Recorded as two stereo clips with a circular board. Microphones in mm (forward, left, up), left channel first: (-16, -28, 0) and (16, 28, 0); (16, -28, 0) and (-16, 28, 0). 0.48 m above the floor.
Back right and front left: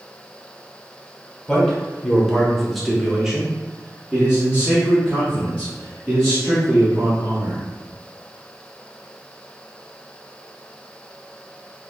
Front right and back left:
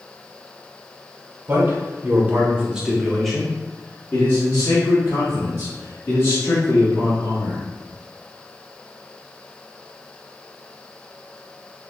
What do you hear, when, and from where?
1.5 s a man speaking: 165° left, 1.4 m; by 7.6 s 10° right, 3.5 m